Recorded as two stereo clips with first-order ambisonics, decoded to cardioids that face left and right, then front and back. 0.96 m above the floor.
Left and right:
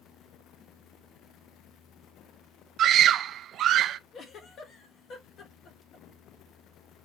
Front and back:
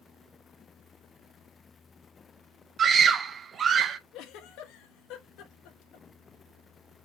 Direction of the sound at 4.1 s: 30° left.